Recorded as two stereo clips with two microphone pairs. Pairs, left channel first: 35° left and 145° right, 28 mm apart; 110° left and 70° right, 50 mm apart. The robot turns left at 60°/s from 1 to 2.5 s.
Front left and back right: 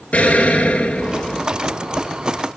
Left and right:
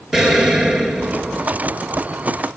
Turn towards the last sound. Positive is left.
turn(degrees=-85)